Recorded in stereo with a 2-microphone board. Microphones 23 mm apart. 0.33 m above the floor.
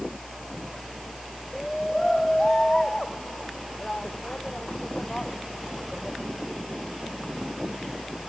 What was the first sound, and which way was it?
A shout, 15° left (ahead or behind).